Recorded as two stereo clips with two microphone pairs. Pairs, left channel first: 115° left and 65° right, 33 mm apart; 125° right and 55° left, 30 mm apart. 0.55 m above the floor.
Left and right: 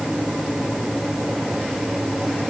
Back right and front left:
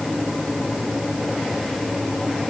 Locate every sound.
Only background noise.